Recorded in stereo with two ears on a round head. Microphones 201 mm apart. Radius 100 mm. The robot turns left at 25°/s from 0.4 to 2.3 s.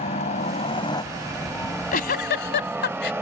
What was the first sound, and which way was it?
A helicopter, 30° left (ahead or behind).